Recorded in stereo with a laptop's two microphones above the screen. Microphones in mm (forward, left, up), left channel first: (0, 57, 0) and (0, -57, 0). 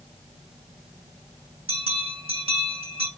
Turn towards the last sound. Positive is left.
turn(degrees=-55)  # may be behind; listen again after turning